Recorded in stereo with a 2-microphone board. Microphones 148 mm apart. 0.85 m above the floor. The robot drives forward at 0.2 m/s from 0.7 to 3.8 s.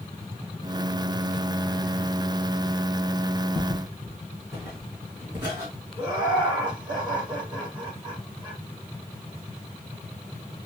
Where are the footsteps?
15° right (ahead or behind), 2.5 m; by 5.7 s 30° right (ahead or behind), 4 m.